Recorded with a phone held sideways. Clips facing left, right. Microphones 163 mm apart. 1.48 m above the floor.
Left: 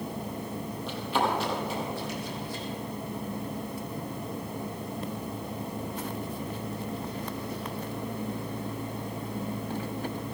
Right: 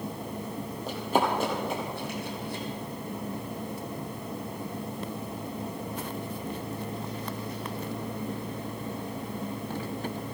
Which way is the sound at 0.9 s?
40° right (ahead or behind).